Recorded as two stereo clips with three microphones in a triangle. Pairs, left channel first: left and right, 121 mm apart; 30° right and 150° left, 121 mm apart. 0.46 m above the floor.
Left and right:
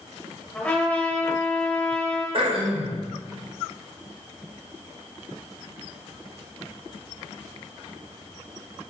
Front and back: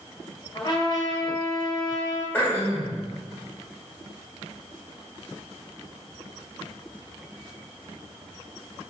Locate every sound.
0.5 s a trumpet: 15° left, 1.5 m
2.3 s throat clearing: 100° right, 2 m